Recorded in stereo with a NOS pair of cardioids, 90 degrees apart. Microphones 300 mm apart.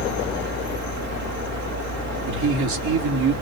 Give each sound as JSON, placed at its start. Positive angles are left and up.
{"t": 0.0, "sound": "a fan", "azimuth_deg": -55, "distance_m": 3.0}
{"t": 2.3, "sound": "a man speaking", "azimuth_deg": -65, "distance_m": 3.5}